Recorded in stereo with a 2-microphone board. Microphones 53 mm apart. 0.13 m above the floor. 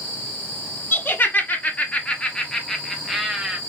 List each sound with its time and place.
0.9 s laughter: 40° left (ahead or behind), 1.5 m; by 3.6 s 10° right (ahead or behind), 1.2 m